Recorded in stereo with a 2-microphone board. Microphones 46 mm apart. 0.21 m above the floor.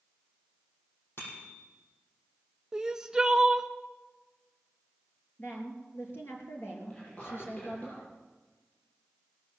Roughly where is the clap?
I don't hear a clap.